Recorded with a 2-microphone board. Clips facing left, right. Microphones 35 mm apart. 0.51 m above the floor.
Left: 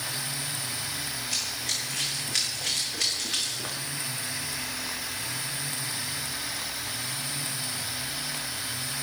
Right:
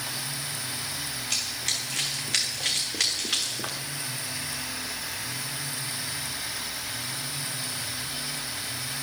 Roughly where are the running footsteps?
Right.